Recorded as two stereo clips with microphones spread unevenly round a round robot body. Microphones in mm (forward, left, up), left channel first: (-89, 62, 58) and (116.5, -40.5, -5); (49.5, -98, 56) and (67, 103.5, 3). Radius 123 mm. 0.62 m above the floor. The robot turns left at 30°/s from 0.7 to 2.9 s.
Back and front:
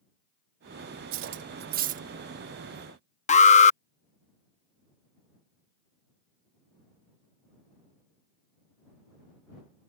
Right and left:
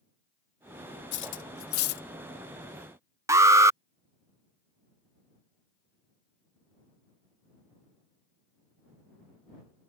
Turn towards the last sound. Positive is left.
turn(degrees=95)